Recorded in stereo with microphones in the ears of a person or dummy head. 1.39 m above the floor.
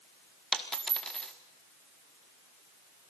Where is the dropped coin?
5° left (ahead or behind), 1.1 m.